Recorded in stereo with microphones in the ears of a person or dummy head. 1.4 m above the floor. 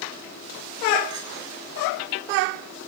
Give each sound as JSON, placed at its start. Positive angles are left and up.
{"t": 1.1, "sound": "a clink", "side_deg": -30, "distance_m": 4.5}